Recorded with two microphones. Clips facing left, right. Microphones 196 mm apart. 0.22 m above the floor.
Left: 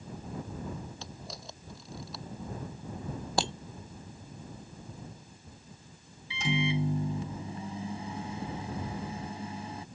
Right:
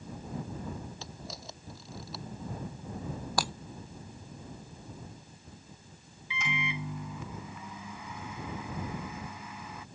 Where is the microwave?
35° left (ahead or behind).